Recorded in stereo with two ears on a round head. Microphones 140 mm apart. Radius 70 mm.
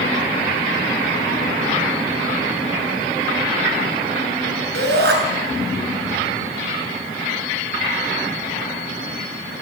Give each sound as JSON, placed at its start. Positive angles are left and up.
{"t": 4.7, "sound": "a shout", "side_deg": -70, "distance_m": 7.5}